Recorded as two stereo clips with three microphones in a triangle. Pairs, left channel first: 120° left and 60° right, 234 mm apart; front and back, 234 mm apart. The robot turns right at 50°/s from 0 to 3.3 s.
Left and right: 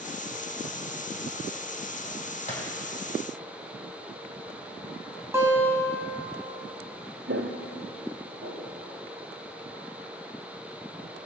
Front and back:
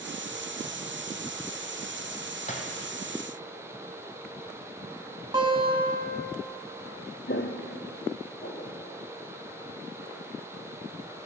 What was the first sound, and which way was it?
A gunshot, 60° left.